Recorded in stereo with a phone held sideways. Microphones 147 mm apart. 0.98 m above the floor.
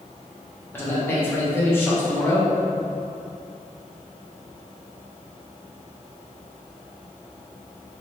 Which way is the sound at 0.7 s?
15° left (ahead or behind).